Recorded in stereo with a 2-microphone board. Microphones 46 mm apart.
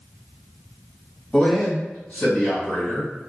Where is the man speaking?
15° left (ahead or behind), 1.5 m; by 3.1 s 35° left (ahead or behind), 3 m.